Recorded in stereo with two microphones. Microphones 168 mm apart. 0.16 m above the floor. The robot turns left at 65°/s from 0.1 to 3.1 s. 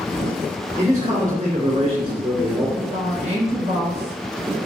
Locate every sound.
0.8 s a man speaking: 55° right, 2.0 m; by 2.7 s straight behind, 2.0 m
2.8 s a woman speaking: 30° right (ahead or behind), 1.9 m; by 4.6 s 40° right (ahead or behind), 1.9 m